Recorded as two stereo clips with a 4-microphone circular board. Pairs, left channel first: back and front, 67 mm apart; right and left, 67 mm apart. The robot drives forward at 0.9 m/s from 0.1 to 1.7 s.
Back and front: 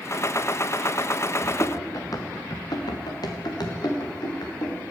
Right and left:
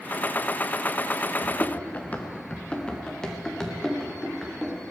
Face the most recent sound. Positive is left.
turn(degrees=180)